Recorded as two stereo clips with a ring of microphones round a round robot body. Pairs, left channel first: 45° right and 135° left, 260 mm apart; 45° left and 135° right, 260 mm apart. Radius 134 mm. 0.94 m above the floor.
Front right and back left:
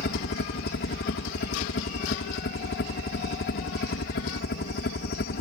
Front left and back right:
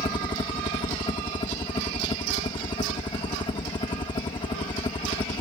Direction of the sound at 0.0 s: 20° right.